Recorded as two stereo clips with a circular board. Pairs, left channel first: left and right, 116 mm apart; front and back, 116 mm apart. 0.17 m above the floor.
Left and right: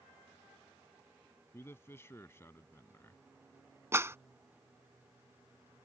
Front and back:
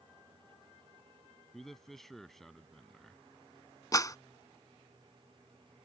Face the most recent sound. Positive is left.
turn(degrees=-35)